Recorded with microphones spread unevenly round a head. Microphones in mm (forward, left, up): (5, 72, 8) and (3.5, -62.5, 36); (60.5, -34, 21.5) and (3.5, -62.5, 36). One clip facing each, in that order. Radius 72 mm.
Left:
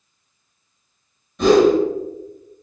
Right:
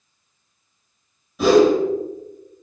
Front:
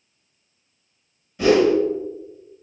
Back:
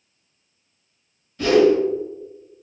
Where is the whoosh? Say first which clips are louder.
Left 1 dB, back 1 dB; 15° left, 1.0 m.